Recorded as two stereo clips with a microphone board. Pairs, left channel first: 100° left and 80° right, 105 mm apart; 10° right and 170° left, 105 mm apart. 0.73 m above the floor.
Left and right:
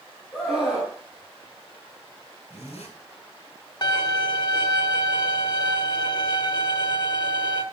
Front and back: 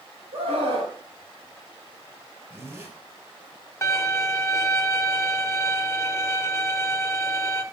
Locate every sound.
0.3 s a scream: 175° left, 5.5 m
2.5 s a zipper: 105° left, 4.5 m
3.8 s a violin: 50° left, 1.1 m